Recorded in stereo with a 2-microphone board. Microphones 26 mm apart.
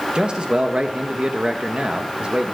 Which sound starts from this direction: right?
A man speaking, at 0.1 s.